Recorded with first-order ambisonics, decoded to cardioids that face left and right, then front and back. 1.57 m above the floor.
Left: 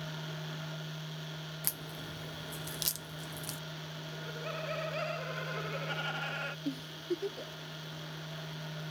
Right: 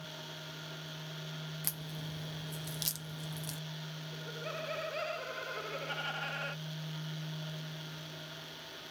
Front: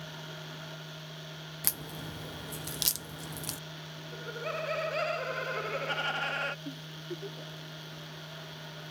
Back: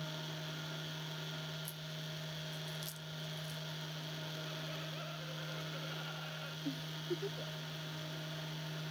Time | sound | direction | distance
1.6 | a crack | 10° left | ?
4.1 | laughter | 5° left | ?
6.7 | a giggle | 90° left | ?